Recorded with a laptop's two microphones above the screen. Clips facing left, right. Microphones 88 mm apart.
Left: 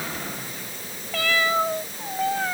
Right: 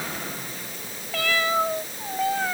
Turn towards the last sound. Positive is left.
No sound to turn to.